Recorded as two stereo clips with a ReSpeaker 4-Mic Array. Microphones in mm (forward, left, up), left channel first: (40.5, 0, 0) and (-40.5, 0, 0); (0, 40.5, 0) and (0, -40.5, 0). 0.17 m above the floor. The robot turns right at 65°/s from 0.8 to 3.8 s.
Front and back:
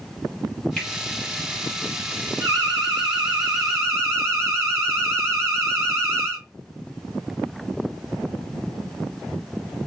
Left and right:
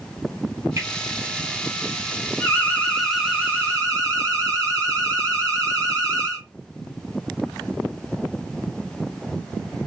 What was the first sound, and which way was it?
A finger snap, 70° right.